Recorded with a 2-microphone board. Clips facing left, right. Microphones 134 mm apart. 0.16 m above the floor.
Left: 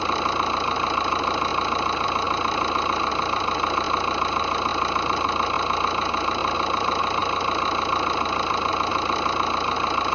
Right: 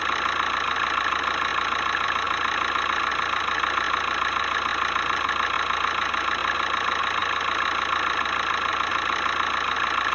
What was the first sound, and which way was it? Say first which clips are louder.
An engine running: left 4 dB; 25° left (ahead or behind).